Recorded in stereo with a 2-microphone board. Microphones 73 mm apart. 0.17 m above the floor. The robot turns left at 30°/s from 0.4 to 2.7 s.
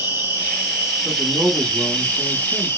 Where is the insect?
150° right, 1.8 m; by 2.8 s 140° left, 1.8 m.